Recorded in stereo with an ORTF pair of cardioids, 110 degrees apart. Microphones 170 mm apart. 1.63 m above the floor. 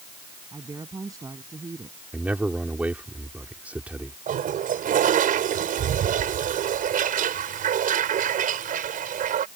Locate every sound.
0.5 s a woman speaking: 20° right
2.1 s a man speaking: 10° right
4.3 s a toilet flushing: 55° right